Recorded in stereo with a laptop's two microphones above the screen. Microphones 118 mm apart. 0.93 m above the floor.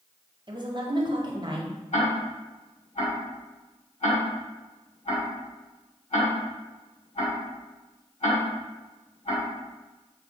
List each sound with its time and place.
0.5 s a woman speaking: 40° right (ahead or behind), 0.8 m
1.9 s ticking: 70° left (ahead or behind), 1.8 m